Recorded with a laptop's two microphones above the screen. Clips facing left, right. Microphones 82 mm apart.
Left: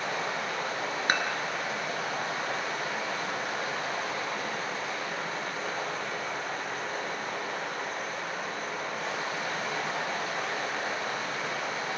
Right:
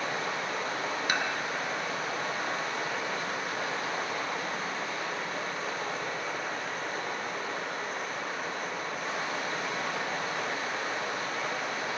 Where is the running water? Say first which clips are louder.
Left 1 dB; 80° left, 4 m.